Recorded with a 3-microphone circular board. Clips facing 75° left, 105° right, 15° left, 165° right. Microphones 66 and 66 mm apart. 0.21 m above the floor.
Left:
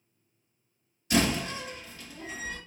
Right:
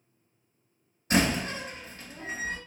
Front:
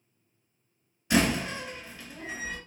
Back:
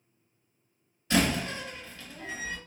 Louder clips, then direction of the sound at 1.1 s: Right 1 dB, front 1 dB; 65° right.